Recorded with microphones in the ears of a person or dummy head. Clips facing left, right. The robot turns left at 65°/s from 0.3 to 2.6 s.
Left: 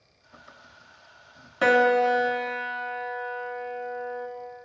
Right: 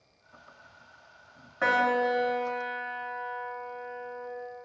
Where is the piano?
125° left, 0.8 m; by 4.3 s 60° left, 0.8 m.